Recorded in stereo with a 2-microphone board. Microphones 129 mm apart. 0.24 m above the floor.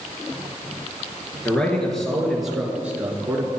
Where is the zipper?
No zipper in this recording.